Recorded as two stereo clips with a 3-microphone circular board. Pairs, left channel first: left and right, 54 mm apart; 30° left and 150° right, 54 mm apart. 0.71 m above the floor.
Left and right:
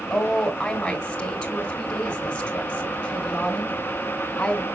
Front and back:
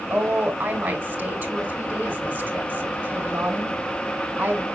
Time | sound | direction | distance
0.1 | a woman speaking | 150° left | 3 m